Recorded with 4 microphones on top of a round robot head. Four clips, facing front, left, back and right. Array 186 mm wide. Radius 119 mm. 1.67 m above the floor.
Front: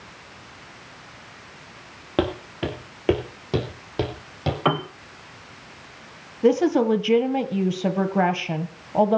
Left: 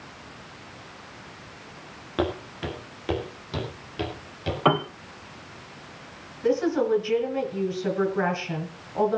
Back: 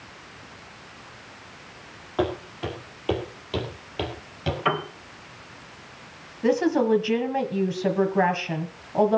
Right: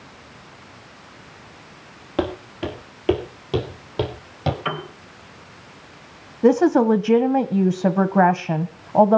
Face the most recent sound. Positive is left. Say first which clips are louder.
# right 8 dB, front 3 dB
turn(degrees=-75)